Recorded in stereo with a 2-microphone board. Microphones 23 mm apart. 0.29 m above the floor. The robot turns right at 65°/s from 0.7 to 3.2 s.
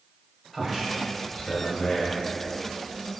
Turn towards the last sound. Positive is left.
turn(degrees=165)